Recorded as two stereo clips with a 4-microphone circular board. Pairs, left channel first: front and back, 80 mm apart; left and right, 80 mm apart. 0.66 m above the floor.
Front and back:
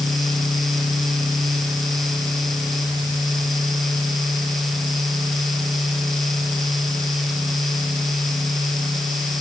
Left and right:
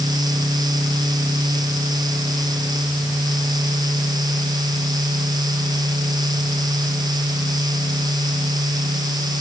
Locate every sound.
Only background noise.